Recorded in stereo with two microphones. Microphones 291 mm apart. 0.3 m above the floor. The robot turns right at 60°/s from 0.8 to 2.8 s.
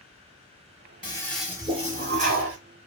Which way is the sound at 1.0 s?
160° left.